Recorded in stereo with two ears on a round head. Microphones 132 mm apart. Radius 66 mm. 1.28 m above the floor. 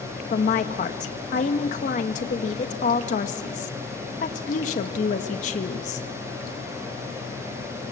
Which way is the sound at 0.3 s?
55° left (ahead or behind).